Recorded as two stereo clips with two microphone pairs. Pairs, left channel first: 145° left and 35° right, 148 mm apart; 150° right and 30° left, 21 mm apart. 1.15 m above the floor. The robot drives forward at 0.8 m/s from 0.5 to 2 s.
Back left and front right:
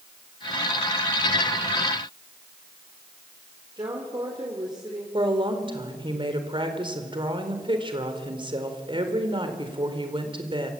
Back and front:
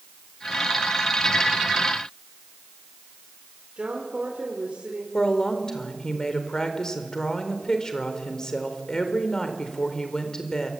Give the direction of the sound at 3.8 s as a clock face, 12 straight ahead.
11 o'clock.